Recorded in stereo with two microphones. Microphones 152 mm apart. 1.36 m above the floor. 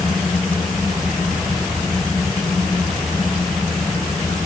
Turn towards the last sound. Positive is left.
No sound to turn to.